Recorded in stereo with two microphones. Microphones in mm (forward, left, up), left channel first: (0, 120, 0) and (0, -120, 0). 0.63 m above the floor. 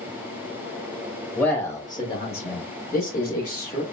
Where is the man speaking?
5° left (ahead or behind), 1.0 m; by 3.8 s 40° left (ahead or behind), 1.1 m.